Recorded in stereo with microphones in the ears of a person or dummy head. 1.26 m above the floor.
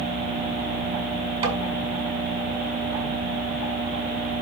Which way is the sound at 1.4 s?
30° right (ahead or behind).